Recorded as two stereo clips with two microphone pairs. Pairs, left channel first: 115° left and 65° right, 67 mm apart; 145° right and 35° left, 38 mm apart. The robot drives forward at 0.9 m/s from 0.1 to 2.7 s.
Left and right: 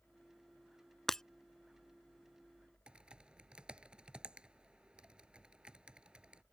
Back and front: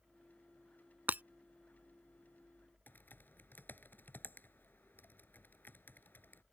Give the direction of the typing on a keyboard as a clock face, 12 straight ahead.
5 o'clock.